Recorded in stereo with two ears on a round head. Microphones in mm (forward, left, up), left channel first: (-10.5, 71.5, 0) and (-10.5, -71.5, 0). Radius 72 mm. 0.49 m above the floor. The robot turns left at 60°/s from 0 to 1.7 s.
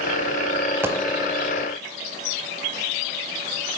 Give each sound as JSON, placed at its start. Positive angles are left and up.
{"t": 0.8, "sound": "a dropped coin", "side_deg": -15, "distance_m": 0.7}